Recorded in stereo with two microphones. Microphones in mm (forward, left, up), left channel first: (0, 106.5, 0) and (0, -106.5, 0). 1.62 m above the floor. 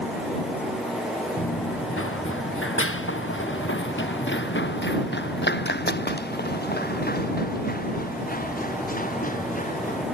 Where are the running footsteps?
80° left; by 10.1 s 40° left (ahead or behind).